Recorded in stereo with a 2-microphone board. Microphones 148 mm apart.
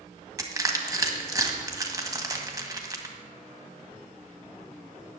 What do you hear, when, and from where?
0.4 s crushing: 25° right (ahead or behind), 1.5 m